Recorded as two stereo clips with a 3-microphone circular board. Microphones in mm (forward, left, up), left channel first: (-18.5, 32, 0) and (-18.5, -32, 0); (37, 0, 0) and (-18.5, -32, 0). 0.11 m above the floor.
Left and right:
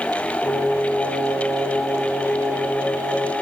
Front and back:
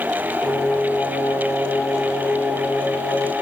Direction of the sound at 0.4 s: 30° left.